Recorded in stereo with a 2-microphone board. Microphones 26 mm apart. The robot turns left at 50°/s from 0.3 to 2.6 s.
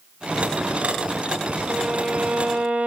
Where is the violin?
30° right, 1.1 m; by 2.9 s 75° right, 1.1 m.